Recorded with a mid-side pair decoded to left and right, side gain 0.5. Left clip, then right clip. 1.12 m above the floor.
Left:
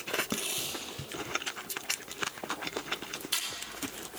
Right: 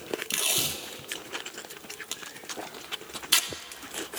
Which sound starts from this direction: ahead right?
Tape being pulled, at 0.3 s.